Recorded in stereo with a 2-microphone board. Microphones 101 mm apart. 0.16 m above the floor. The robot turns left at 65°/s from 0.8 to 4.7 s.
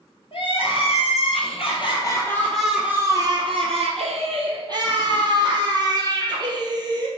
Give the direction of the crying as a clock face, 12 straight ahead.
8 o'clock.